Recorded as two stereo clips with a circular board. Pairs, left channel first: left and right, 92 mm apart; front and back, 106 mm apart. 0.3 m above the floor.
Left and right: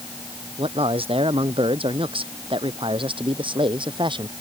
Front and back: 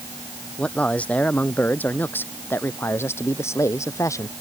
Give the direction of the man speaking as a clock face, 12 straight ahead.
3 o'clock.